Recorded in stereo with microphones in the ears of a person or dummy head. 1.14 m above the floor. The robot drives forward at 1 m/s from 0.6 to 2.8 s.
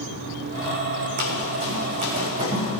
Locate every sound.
1.2 s running footsteps: 50° right (ahead or behind), 3.5 m; by 2.8 s 25° right (ahead or behind), 4.5 m